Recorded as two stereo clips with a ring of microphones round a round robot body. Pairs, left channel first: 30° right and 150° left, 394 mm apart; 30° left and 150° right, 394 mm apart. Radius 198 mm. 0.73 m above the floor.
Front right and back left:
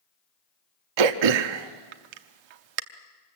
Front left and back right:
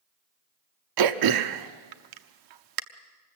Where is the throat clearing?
170° left, 0.9 m.